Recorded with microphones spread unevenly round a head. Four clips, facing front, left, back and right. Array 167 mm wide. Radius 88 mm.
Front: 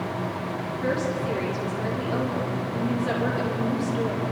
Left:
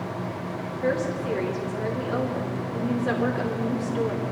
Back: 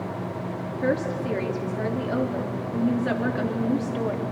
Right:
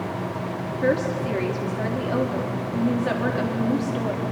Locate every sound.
0.7 s a woman speaking: 125° right, 3.5 m